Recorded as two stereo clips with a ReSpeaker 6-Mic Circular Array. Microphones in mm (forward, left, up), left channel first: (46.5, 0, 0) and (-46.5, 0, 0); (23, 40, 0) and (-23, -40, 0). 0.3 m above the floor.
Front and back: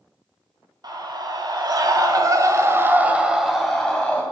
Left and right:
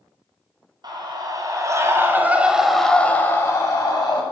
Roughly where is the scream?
Behind right.